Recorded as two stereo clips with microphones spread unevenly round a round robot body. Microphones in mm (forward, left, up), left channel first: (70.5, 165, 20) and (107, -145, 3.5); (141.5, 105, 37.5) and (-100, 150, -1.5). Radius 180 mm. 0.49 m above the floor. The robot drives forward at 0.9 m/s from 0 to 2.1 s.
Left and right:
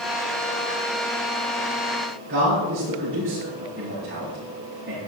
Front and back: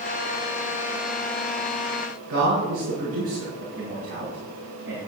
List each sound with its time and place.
2.3 s a man speaking: 145° right, 7 m